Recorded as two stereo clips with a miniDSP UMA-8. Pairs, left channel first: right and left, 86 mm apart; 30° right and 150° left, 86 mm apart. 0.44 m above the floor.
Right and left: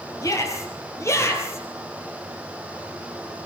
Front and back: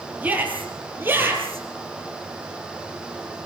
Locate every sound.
0.2 s a shout: 140° right, 8.5 m; by 1.6 s 150° right, 9 m